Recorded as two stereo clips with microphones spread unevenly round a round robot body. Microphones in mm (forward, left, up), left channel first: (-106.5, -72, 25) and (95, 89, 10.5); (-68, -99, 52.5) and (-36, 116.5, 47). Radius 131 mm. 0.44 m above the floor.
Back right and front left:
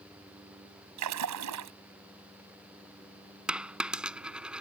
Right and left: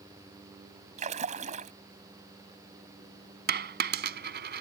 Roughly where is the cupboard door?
I don't hear a cupboard door.